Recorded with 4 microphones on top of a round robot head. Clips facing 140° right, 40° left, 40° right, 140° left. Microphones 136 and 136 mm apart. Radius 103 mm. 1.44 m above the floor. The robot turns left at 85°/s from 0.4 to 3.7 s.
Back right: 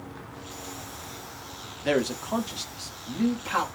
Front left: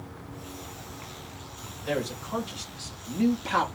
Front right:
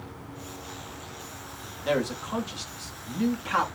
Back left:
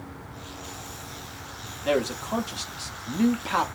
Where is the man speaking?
130° right, 0.9 m; by 3.6 s 75° left, 0.9 m.